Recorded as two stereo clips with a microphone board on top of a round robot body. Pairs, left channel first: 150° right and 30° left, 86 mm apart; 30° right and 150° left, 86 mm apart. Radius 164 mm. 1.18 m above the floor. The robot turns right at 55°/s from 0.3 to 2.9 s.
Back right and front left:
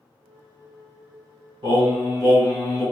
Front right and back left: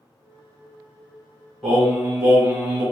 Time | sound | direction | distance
1.6 | singing | 55° left | 1.7 m